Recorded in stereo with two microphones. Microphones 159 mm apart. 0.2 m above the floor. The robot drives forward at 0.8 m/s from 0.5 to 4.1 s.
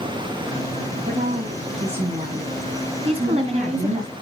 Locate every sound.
1.1 s a woman speaking: 40° right (ahead or behind), 7 m; by 4.0 s 60° right (ahead or behind), 5.5 m
3.0 s a woman speaking: 35° right (ahead or behind), 1.7 m; by 4.1 s 45° right (ahead or behind), 1.4 m